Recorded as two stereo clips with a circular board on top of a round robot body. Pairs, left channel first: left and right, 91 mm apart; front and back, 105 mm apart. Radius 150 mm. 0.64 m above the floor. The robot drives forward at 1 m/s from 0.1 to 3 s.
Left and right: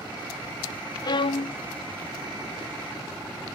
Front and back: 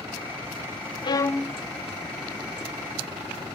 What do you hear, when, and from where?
1.0 s a violin: 45° left; by 1.6 s 105° left